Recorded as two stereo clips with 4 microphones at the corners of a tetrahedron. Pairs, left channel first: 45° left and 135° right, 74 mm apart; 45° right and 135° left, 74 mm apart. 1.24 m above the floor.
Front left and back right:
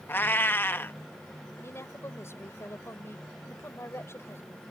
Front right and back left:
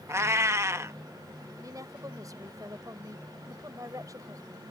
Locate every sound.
0.1 s a cat meowing: 95° left
1.6 s a woman speaking: 95° left